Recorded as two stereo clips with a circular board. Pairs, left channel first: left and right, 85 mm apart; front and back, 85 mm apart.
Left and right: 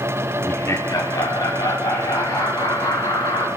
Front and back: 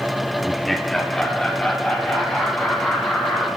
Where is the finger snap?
I don't hear a finger snap.